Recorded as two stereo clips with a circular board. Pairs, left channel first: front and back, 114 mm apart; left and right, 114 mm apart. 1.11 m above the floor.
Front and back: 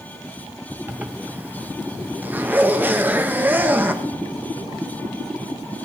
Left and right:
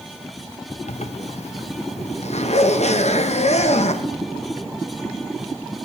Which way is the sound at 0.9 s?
105° left.